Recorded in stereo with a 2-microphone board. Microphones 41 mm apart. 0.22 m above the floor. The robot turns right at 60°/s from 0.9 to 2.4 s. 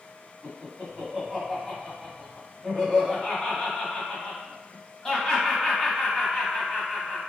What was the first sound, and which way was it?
Laughter, 20° right (ahead or behind).